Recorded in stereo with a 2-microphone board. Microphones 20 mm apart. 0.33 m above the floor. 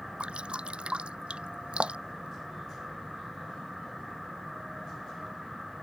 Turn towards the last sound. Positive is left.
turn(degrees=-85)